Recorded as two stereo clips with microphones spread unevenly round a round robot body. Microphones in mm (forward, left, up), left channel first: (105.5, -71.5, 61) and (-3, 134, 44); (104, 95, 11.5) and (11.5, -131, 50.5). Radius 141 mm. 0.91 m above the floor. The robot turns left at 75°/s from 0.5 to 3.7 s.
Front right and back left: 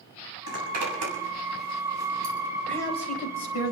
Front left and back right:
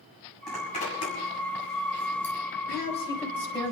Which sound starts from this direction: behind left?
A zipper, at 0.5 s.